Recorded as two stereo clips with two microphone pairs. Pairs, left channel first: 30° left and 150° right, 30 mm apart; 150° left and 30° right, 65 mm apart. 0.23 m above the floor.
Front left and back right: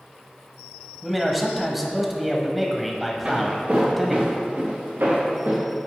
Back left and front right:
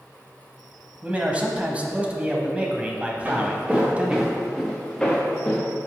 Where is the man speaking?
65° right, 1.0 m.